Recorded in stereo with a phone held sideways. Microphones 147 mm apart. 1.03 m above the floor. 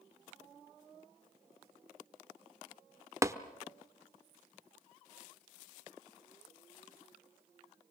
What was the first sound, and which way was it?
Tapping, 20° right (ahead or behind).